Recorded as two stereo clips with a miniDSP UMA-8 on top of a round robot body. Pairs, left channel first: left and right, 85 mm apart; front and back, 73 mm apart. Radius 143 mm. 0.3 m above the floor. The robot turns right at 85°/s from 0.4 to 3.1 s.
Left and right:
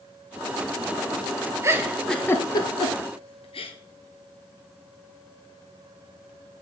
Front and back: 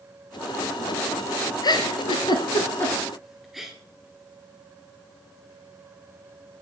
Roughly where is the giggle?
Ahead right.